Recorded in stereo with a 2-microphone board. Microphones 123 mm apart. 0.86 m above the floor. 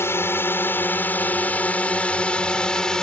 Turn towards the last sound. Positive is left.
turn(degrees=5)  # may be behind; listen again after turning